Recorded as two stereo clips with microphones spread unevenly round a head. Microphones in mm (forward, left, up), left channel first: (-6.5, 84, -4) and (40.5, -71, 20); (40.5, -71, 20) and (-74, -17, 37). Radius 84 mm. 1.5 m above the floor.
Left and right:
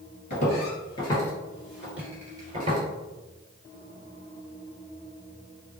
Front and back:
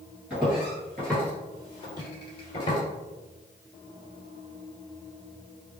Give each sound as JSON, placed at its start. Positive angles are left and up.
{"t": 0.3, "sound": "footsteps", "azimuth_deg": 90, "distance_m": 1.7}